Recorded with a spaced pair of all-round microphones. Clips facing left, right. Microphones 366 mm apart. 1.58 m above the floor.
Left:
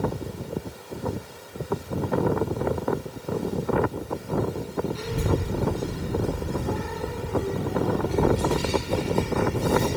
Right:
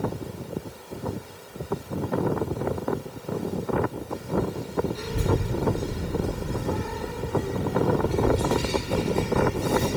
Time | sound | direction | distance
5.0 | a child speaking | 75° left (ahead or behind) | 2.5 m